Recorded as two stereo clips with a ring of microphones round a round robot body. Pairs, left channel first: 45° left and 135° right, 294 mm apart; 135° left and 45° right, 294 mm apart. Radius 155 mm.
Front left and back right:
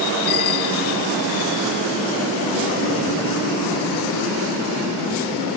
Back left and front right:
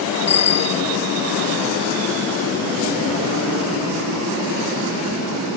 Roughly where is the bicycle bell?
Ahead left.